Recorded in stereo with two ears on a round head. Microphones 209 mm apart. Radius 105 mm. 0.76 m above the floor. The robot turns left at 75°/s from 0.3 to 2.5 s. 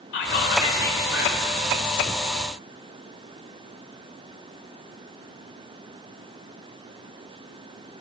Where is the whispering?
55° left, 3 m; by 1.5 s 40° right, 3 m.